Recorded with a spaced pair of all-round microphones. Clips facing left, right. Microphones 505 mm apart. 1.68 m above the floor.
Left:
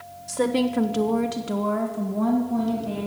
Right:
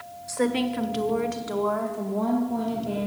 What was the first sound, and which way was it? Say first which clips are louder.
A woman speaking: left 2 dB; 50° left (ahead or behind).